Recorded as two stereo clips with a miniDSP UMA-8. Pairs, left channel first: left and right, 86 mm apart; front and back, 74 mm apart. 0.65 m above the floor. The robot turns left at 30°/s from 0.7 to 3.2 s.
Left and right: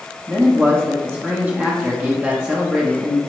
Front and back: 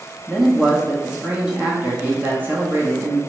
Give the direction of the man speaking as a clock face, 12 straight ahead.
3 o'clock.